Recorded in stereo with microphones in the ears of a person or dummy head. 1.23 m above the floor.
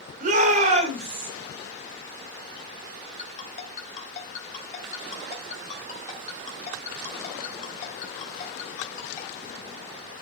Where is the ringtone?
35° left (ahead or behind), 3.5 m.